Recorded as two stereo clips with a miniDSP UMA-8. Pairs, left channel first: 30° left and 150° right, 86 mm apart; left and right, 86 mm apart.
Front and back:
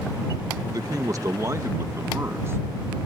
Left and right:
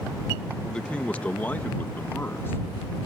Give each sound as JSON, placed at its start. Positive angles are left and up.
{"t": 0.7, "sound": "a man speaking", "azimuth_deg": 170}